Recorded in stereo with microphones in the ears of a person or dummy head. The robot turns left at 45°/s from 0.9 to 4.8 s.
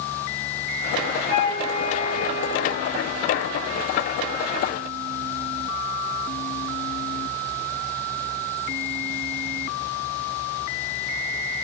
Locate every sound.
1.3 s a flute: 160° left, 0.7 m; by 2.8 s 90° left, 0.7 m